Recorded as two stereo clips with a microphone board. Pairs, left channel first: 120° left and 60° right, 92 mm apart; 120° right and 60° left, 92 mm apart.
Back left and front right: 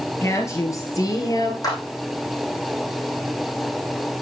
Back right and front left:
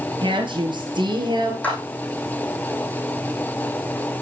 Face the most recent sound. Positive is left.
turn(degrees=165)